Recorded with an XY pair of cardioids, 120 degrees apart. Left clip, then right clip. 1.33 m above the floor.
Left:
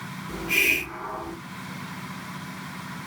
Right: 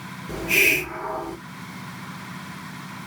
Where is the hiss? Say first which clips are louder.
Right 3 dB; 45° right, 2 m.